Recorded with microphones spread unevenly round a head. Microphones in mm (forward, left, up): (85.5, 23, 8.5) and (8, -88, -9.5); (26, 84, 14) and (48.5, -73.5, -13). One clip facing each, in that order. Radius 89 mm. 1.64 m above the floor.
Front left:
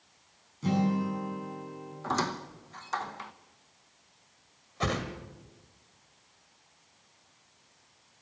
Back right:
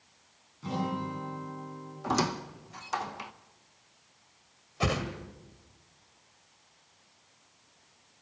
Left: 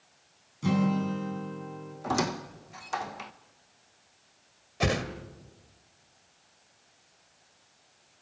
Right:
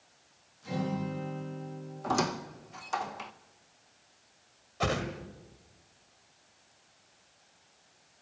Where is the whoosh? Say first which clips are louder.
Back right 1 dB, left 2 dB; 145° left, 1.6 m.